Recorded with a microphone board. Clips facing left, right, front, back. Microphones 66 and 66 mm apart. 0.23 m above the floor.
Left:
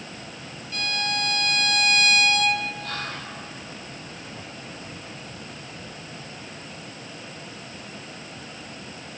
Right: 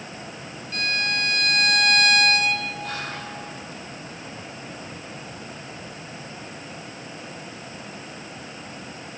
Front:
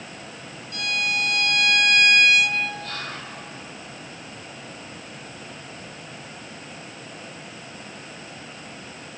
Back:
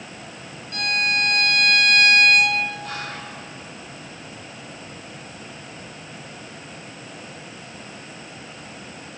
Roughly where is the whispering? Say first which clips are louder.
Right 1 dB, back 2 dB; behind right.